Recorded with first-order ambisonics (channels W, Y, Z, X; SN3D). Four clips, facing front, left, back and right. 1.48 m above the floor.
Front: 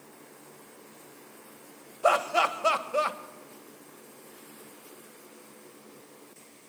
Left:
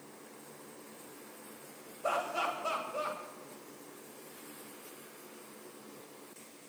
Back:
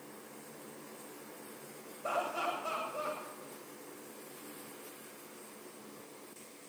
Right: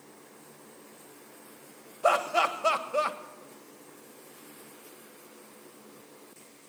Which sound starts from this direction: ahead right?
Laughter, at 2.0 s.